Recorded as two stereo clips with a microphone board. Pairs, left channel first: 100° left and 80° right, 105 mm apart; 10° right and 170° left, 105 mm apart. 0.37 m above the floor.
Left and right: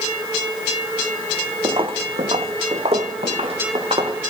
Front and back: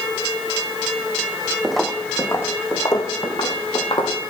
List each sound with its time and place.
1.6 s footsteps: 105° right, 0.8 m; by 4.3 s 50° right, 1.9 m